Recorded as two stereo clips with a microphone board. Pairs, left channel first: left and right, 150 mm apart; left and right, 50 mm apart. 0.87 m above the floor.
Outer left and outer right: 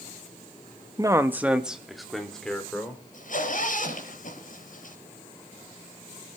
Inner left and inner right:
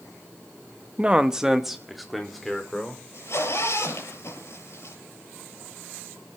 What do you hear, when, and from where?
1.0 s a man speaking: 25° right (ahead or behind), 1.0 m; by 3.0 s 5° left (ahead or behind), 3.5 m
3.1 s a zipper: 60° left (ahead or behind), 6.5 m